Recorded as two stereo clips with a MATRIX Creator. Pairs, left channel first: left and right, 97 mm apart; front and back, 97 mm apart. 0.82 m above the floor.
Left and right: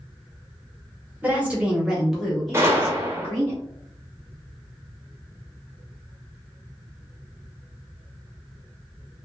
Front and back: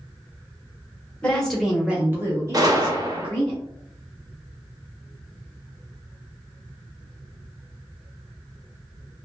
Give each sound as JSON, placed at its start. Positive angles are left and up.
{"t": 1.2, "sound": "a woman speaking", "azimuth_deg": -55, "distance_m": 0.8}
{"t": 2.5, "sound": "a gunshot", "azimuth_deg": -145, "distance_m": 0.6}